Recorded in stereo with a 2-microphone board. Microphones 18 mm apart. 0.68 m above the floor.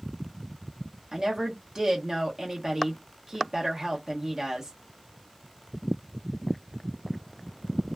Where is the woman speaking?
40° right (ahead or behind), 0.9 m.